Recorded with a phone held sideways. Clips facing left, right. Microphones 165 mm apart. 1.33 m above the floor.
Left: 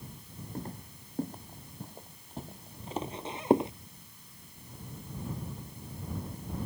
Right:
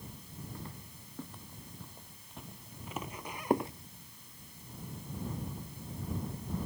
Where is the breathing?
I don't hear breathing.